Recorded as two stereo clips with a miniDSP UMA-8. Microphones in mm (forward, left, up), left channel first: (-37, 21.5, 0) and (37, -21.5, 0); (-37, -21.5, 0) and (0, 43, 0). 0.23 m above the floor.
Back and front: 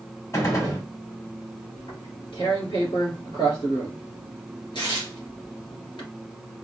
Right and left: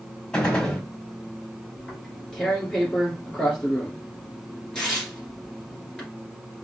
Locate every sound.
0.3 s a gunshot: 170° left, 1.3 m
1.8 s tearing paper: 160° left, 2 m